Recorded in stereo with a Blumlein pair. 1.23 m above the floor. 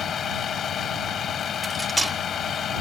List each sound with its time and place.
0.0 s a vehicle: 25° left
1.6 s cutlery clinking: 5° right